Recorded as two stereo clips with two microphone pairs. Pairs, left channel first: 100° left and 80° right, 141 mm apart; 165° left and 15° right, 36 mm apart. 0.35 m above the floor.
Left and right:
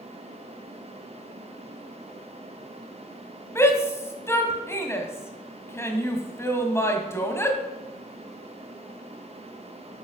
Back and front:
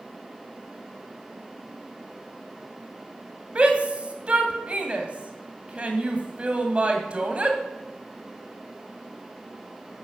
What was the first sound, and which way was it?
A shout, 30° left.